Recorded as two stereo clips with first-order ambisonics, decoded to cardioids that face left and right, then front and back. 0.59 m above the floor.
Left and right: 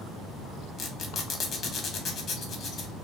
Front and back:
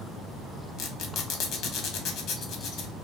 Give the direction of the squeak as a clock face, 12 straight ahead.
11 o'clock.